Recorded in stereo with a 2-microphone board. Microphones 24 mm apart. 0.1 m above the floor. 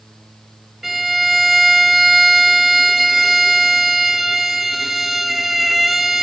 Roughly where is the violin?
Centre.